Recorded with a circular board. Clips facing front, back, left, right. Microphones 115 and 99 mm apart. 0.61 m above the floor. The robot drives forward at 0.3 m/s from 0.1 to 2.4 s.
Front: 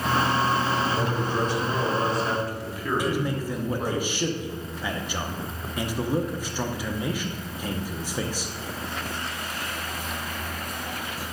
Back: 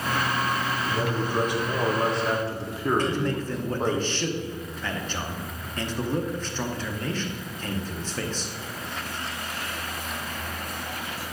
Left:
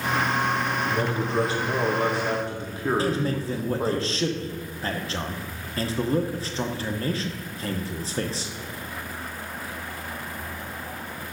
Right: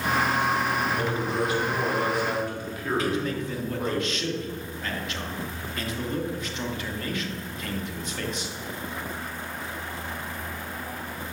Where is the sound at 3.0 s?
70° left, 0.7 m.